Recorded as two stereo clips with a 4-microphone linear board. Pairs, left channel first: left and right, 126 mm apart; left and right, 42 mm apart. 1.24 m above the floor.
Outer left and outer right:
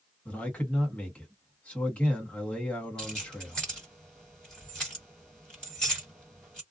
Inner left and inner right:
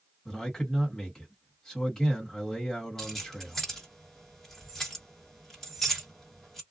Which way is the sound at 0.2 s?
10° left (ahead or behind).